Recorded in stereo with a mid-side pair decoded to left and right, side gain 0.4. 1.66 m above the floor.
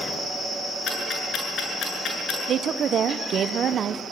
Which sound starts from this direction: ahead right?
A woman speaking, at 2.5 s.